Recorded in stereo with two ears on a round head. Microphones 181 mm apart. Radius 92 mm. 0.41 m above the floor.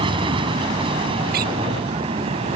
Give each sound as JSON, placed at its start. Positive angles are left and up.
{"t": 0.0, "sound": "an aircraft", "side_deg": -25}
{"t": 1.3, "sound": "a door slam", "side_deg": -45}